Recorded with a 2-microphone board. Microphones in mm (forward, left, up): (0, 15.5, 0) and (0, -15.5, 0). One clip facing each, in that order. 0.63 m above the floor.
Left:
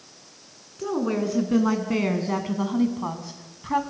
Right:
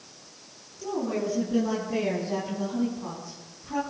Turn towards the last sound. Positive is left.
turn(degrees=65)  # may be behind; listen again after turning